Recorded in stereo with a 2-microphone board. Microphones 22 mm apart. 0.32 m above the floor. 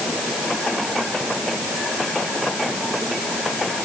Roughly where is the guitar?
I don't hear a guitar.